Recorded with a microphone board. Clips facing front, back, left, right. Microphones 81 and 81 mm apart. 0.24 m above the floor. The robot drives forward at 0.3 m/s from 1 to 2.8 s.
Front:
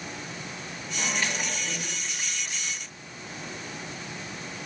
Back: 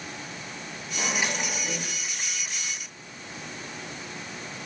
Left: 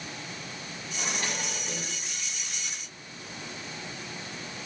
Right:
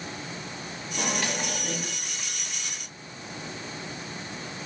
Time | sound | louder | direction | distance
1.0 | a microwave | back 1 dB, right 4 dB | 105° right | 3 m